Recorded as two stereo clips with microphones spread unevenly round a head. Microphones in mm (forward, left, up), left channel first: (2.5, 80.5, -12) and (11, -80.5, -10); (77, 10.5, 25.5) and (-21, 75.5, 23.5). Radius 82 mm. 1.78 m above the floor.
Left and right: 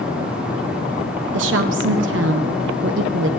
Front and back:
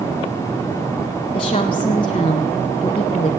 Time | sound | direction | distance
1.3 | a woman speaking | 90° right | 0.7 m